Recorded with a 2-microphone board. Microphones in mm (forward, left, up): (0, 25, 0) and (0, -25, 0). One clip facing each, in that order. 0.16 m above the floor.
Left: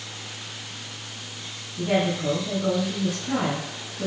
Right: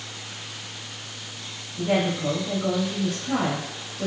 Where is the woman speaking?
5° left (ahead or behind), 3 m.